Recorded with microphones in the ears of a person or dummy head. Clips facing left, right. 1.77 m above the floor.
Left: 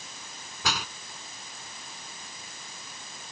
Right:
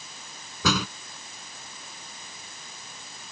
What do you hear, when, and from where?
0.6 s a door slam: 80° right